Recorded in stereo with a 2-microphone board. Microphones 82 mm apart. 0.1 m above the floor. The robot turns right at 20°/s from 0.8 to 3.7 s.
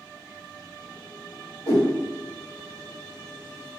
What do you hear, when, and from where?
1.7 s a whoosh: 45° right (ahead or behind), 1.4 m